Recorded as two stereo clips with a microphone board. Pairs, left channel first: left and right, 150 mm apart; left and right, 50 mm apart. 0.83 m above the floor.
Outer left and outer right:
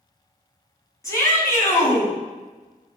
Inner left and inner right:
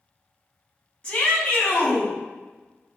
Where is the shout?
20° left (ahead or behind), 5.5 m.